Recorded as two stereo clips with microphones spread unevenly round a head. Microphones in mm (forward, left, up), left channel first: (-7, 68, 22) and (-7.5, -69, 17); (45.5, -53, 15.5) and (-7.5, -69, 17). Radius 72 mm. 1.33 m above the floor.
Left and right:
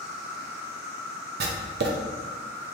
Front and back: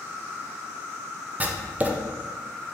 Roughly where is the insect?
Behind left.